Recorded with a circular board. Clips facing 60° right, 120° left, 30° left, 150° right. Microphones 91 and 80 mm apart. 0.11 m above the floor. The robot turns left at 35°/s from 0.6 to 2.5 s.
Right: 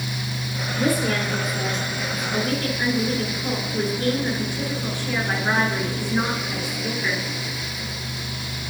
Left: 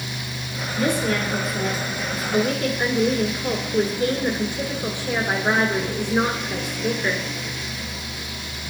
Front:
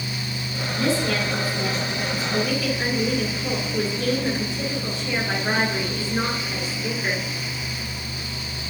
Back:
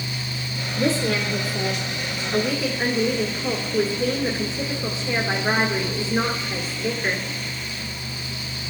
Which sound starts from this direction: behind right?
A woman speaking, at 0.8 s.